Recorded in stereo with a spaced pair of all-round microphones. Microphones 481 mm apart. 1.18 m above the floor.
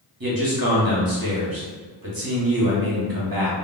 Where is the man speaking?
45° right (ahead or behind), 1.0 m.